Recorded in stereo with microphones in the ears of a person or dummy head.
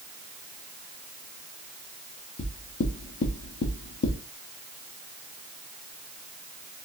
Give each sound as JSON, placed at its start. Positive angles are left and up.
{"t": 2.4, "sound": "knocking", "side_deg": 65, "distance_m": 0.9}